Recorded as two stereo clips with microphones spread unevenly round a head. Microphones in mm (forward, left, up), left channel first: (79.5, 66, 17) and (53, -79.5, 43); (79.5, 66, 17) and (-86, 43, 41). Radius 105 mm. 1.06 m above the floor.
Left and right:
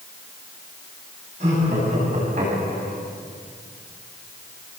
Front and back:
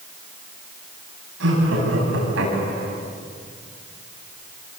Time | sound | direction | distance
1.4 | laughter | 160° right | 10 m